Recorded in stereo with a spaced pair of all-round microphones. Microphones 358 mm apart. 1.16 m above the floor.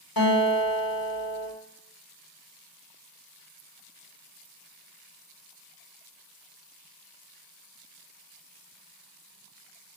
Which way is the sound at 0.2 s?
70° left (ahead or behind).